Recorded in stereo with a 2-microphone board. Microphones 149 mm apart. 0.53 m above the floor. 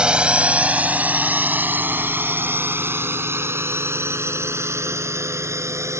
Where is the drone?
5° right (ahead or behind); by 6.0 s 20° right (ahead or behind).